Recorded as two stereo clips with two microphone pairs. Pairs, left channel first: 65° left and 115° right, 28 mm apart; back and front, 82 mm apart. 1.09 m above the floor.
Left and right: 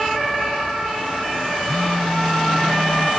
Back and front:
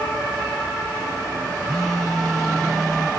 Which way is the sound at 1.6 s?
95° left.